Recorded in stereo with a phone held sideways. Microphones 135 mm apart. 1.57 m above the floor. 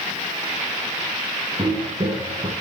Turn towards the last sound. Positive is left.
turn(degrees=-35)  # may be behind; listen again after turning